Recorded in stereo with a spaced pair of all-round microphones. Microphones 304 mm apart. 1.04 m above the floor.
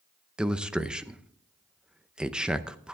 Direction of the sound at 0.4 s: 5° right (ahead or behind).